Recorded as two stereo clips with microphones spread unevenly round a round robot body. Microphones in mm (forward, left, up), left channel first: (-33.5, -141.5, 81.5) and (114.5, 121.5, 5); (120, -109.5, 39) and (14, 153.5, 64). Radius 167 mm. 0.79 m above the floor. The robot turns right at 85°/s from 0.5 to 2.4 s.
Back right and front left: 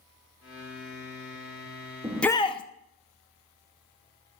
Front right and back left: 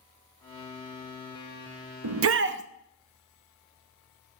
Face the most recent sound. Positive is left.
turn(degrees=160)